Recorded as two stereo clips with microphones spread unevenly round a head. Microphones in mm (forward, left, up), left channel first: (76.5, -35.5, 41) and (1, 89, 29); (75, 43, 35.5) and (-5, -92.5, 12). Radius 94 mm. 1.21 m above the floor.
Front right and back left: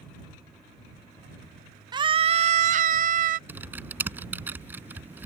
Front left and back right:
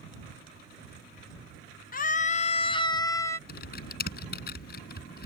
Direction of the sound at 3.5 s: 45° left.